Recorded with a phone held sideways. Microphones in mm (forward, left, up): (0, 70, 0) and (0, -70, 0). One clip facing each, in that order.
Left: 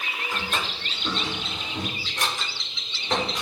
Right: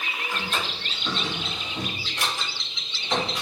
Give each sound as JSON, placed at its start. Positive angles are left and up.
{"t": 0.3, "sound": "a drawer", "side_deg": 45, "distance_m": 1.5}